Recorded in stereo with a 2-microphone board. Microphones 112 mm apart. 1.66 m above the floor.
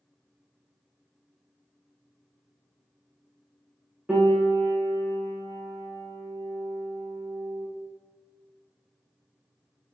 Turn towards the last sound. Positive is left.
turn(degrees=-5)  # may be behind; listen again after turning